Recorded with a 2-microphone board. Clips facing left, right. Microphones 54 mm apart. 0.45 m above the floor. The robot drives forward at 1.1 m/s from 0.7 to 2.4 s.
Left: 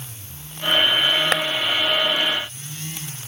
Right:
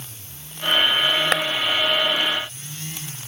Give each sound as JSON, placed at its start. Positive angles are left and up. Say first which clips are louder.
{"t": 1.3, "sound": "a clap", "louder": "even", "side_deg": -5}